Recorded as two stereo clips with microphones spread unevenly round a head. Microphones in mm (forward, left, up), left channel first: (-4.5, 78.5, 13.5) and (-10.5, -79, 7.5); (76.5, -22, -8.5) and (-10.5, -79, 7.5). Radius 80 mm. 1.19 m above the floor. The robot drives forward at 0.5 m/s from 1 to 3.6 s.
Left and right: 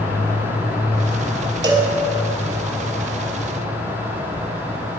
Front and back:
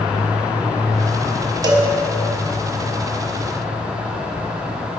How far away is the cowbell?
About 0.9 m.